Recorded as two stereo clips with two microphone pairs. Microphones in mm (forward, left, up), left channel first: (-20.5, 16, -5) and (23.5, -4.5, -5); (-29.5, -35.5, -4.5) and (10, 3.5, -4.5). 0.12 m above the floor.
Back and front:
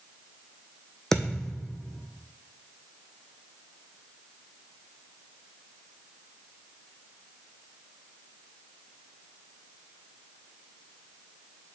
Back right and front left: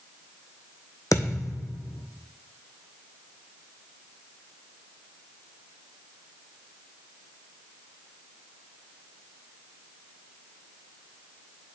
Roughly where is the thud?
Behind right.